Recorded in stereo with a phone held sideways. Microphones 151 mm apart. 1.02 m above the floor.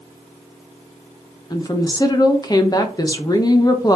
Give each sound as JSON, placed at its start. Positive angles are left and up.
{"t": 1.5, "sound": "a woman speaking", "side_deg": 25, "distance_m": 0.7}